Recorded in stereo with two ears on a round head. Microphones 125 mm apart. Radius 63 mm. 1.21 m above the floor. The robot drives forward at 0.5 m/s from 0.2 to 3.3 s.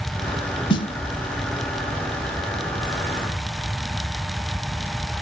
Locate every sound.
0.7 s a snare drum: 35° left (ahead or behind), 1.0 m